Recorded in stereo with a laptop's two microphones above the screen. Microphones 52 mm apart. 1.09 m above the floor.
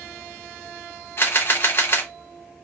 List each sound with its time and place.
1.2 s a camera shutter: 45° left (ahead or behind), 0.5 m